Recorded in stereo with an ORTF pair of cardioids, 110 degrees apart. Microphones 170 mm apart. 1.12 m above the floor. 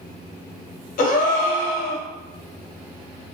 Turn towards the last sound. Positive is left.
turn(degrees=55)